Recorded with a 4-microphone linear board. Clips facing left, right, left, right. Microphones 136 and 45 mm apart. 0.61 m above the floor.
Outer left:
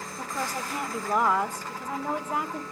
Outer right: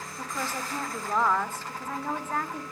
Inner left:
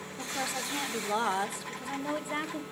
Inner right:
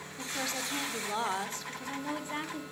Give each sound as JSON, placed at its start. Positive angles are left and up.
{"t": 0.2, "sound": "a woman speaking", "side_deg": 15, "distance_m": 1.3}